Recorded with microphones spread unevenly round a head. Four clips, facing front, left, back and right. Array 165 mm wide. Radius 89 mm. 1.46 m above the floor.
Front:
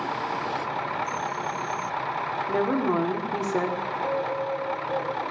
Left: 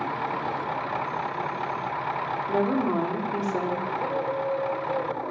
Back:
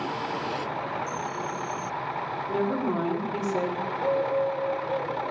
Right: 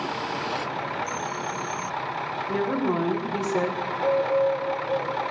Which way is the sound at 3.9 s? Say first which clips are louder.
Right 5 dB, back 2 dB; 105° left.